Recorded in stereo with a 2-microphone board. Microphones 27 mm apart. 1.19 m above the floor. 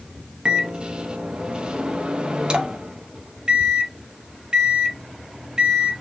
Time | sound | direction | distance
0.5 | a microwave | 30° right (ahead or behind) | 0.7 m